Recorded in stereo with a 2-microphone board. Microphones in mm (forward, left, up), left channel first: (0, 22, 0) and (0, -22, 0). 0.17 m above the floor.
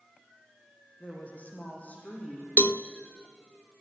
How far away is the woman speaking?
About 6 m.